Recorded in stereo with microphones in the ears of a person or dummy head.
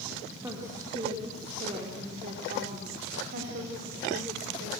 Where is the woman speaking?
25° right (ahead or behind), 3 m; by 4.7 s 70° right (ahead or behind), 4 m.